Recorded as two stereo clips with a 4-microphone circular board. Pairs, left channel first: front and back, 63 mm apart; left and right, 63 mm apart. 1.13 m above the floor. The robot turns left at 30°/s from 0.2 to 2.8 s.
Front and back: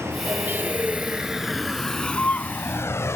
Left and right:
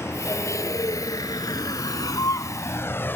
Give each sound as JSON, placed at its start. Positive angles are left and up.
{"t": 0.0, "sound": "a vehicle", "azimuth_deg": 135}